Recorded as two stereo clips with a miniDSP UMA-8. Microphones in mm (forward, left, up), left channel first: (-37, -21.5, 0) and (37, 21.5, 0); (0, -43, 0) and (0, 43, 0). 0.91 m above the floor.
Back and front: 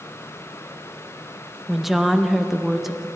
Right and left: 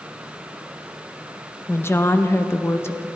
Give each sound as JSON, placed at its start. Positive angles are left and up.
{"t": 1.7, "sound": "a woman speaking", "azimuth_deg": -55, "distance_m": 0.6}